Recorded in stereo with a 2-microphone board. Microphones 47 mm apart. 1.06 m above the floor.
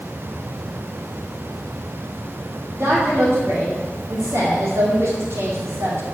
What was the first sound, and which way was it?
A woman speaking, 60° right (ahead or behind).